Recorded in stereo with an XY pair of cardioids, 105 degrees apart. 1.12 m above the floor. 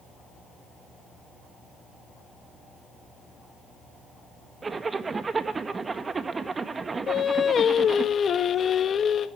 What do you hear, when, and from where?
4.6 s a zipper: 30° right, 1.6 m
7.1 s singing: 50° left, 1.7 m